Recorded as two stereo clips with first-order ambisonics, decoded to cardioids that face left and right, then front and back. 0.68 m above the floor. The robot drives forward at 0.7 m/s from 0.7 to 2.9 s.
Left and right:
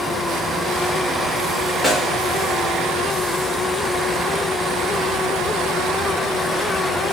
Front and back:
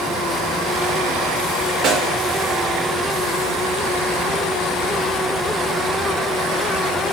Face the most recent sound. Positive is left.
turn(degrees=180)